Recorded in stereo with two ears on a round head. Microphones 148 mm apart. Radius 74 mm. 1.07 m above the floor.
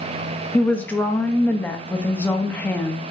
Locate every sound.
0.5 s a woman speaking: 10° left (ahead or behind), 1.0 m